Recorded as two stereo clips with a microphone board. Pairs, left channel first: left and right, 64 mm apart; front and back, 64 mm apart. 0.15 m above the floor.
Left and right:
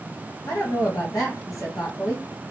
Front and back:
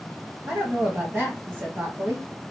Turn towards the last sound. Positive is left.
turn(degrees=115)